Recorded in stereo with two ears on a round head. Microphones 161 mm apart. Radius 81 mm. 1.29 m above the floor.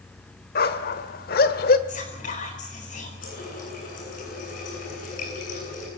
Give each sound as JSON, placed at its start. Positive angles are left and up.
{"t": 0.6, "sound": "a dog barking", "side_deg": 55, "distance_m": 1.5}
{"t": 1.9, "sound": "whispering", "side_deg": 50, "distance_m": 5.5}
{"t": 3.2, "sound": "a running tap", "side_deg": 45, "distance_m": 9.5}